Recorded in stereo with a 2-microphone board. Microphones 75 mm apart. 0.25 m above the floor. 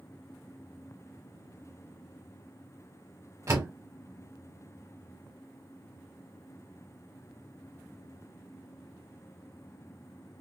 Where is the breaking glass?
I don't hear breaking glass.